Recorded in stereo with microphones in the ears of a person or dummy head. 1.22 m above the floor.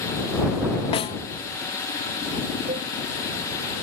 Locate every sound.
0.9 s a snare drum: 35° left (ahead or behind)
2.7 s a cowbell: 35° right (ahead or behind)